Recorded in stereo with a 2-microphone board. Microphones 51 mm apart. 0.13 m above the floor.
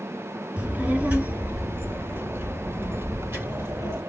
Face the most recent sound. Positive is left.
turn(degrees=-60)  # may be behind; listen again after turning